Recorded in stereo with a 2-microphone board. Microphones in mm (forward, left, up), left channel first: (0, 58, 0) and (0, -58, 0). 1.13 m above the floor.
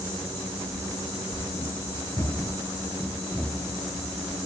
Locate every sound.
0.7 s running footsteps: 45° left (ahead or behind), 1.5 m; by 4.3 s 5° right (ahead or behind), 2 m